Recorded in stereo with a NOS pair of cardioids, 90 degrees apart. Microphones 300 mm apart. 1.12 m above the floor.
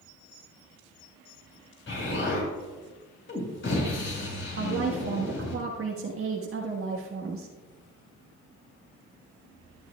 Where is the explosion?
40° left, 4.5 m.